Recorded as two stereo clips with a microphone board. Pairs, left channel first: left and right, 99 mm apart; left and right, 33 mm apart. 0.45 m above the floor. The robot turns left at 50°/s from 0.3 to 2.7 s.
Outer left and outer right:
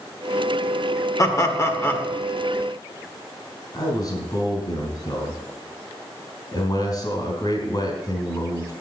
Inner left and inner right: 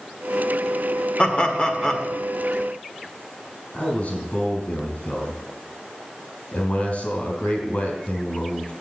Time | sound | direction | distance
1.2 | laughter | 75° left | 1.4 m
3.7 | a man speaking | 45° left (ahead or behind) | 3.5 m